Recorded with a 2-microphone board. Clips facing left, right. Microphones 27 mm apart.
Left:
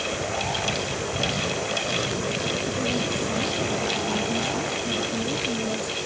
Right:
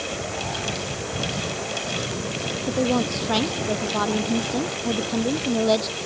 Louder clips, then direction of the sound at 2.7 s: Right 3 dB; 65° right (ahead or behind).